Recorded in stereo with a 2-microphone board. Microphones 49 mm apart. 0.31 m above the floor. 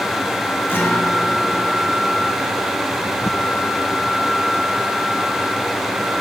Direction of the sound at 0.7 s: 50° left (ahead or behind).